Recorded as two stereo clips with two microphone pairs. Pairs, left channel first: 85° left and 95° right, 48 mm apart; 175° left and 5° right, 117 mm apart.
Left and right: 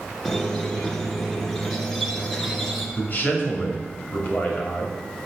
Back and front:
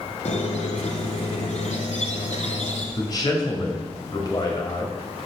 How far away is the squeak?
About 1.5 m.